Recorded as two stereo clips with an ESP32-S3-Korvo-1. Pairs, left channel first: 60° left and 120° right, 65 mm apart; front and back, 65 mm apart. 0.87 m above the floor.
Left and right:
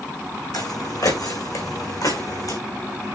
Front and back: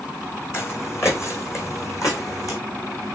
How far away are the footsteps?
About 3.5 m.